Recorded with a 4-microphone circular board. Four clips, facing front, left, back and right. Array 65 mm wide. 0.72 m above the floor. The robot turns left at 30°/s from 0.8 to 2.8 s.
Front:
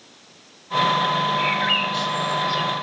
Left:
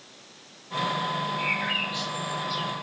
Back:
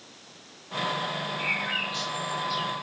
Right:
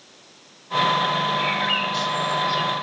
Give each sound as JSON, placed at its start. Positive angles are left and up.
{"t": 1.4, "sound": "a bird", "azimuth_deg": -10, "distance_m": 3.5}